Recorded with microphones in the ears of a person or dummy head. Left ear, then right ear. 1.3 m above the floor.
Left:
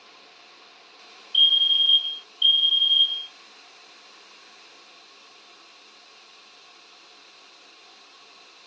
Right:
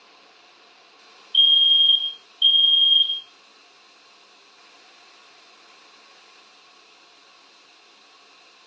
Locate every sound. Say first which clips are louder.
1.3 s a fire alarm: right 3 dB; 5° right (ahead or behind), 0.8 m